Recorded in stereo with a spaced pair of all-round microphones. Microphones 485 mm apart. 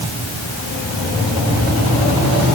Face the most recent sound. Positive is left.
No sound to turn to.